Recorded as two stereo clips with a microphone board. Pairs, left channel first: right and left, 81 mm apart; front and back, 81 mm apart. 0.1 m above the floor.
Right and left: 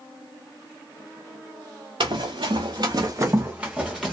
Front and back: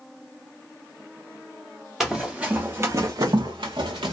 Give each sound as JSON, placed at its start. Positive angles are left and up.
{"t": 2.0, "sound": "running footsteps", "azimuth_deg": 95, "distance_m": 0.8}